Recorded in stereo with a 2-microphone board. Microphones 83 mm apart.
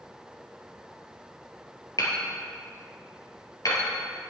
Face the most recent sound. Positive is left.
turn(degrees=45)  # may be behind; listen again after turning